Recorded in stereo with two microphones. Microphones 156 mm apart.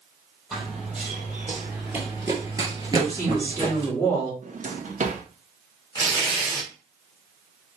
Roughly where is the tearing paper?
Left.